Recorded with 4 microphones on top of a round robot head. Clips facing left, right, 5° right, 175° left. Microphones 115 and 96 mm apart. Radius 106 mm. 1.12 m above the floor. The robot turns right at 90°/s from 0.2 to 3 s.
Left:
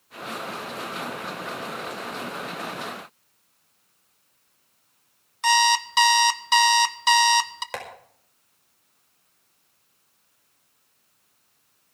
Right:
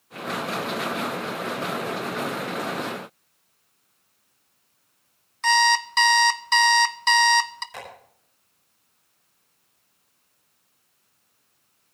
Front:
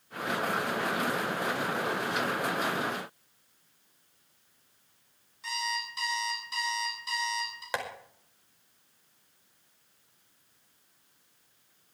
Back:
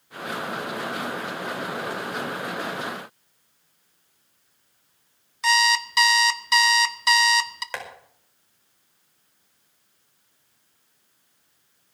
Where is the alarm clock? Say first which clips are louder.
Even, back 14 dB; 170° left, 0.8 m.